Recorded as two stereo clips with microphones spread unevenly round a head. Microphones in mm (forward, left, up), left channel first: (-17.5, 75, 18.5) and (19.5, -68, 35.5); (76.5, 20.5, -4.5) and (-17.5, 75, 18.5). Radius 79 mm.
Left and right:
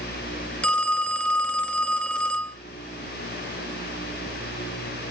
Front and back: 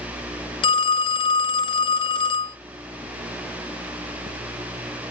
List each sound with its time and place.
0.6 s a phone ringing: 20° left, 0.5 m